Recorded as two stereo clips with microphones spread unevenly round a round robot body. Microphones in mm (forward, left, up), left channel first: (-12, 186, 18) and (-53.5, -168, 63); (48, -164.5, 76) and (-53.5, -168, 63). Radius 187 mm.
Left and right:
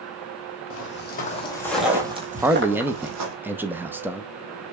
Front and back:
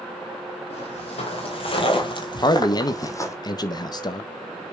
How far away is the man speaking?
About 0.6 m.